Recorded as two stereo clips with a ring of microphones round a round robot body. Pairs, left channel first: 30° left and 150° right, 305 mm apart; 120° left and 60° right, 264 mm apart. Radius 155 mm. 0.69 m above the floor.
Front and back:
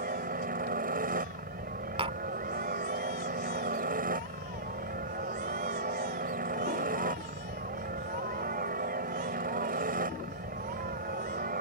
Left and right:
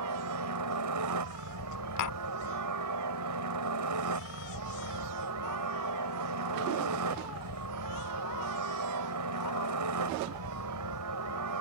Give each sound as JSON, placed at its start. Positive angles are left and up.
{"t": 0.0, "sound": "a helicopter", "azimuth_deg": -85}
{"t": 2.0, "sound": "tapping", "azimuth_deg": 135}